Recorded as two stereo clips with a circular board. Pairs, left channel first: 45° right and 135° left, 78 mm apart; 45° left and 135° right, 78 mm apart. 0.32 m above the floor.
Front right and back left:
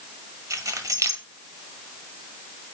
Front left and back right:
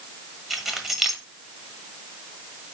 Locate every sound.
0.5 s keys jangling: 140° left, 1.2 m